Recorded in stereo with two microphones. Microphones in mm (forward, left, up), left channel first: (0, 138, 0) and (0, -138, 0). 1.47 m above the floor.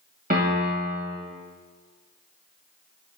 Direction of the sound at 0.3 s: 30° right (ahead or behind).